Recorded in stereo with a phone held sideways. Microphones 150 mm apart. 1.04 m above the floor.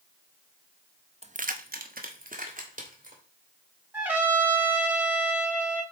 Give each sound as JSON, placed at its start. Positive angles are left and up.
{"t": 1.2, "sound": "keys jangling", "side_deg": -45, "distance_m": 0.6}
{"t": 3.9, "sound": "a trumpet", "side_deg": -10, "distance_m": 1.2}